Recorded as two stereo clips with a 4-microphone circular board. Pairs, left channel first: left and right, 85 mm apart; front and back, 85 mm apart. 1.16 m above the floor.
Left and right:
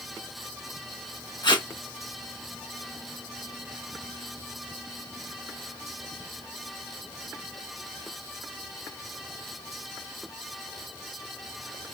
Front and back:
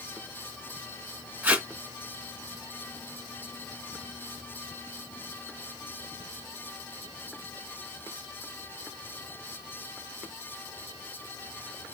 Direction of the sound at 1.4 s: 105° left.